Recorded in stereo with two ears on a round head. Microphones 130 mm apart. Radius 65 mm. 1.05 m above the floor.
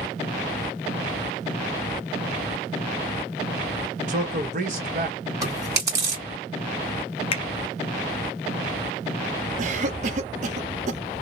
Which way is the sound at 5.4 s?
25° right (ahead or behind).